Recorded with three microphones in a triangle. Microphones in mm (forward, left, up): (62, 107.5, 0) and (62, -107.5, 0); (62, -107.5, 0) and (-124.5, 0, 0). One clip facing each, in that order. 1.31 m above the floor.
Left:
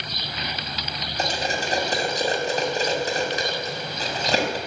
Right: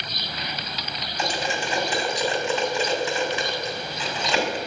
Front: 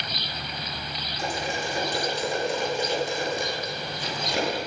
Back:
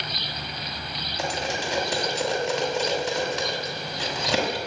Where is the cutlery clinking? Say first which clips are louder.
Left 1 dB, back 1 dB; 140° left, 6 m.